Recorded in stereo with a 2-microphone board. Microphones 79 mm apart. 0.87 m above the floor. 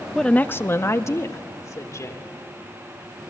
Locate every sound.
0.1 s a woman speaking: 5° left (ahead or behind), 0.5 m; by 2.3 s 45° left (ahead or behind), 3 m